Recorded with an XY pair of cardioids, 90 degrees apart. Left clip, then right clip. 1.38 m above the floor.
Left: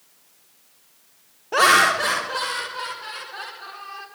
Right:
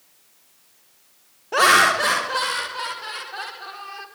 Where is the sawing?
I don't hear sawing.